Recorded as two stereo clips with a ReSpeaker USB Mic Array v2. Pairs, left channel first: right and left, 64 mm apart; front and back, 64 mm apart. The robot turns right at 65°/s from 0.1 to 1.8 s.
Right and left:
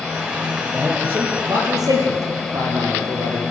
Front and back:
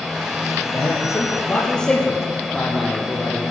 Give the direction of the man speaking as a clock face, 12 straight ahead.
12 o'clock.